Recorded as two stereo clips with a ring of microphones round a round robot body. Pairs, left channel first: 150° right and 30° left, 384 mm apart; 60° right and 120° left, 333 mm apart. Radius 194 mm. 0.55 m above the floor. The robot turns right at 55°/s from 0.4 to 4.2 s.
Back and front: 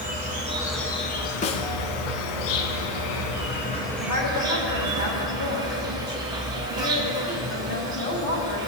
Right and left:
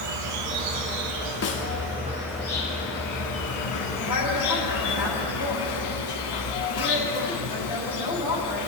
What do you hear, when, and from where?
0.0 s an insect: 100° left, 1.2 m; by 8.7 s 50° right, 1.2 m
1.4 s a snare drum: 90° right, 0.9 m; by 1.7 s 75° right, 0.9 m
4.0 s a woman speaking: 110° right, 4.5 m; by 8.6 s 95° right, 4.5 m